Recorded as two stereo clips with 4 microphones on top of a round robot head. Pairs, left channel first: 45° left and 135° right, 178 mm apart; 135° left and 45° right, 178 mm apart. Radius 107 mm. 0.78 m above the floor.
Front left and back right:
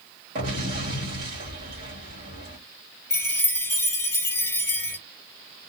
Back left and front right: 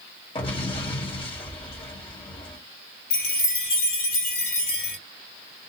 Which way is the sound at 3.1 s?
120° left.